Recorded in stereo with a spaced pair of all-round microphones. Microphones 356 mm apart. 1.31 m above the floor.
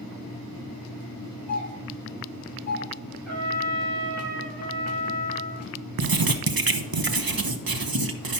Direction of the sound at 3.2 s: 5° left (ahead or behind).